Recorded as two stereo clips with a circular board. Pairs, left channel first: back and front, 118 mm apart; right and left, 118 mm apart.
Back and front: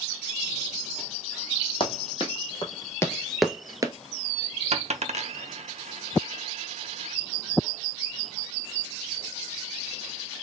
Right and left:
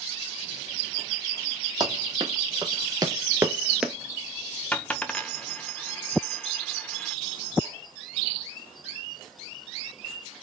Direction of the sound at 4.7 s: 10° right.